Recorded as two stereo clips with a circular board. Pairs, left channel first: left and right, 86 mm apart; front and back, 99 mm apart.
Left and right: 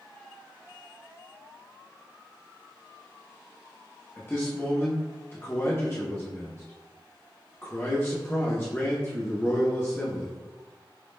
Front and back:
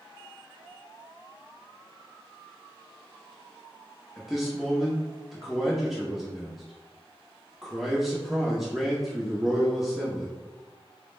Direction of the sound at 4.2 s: 95° left.